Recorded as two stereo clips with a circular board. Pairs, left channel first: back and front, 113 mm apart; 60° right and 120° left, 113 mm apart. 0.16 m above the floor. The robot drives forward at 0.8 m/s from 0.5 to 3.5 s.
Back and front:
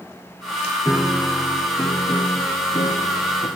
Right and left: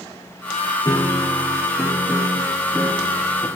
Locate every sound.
0.8 s a piano: 60° right, 1.0 m; by 3.5 s 160° right, 2.0 m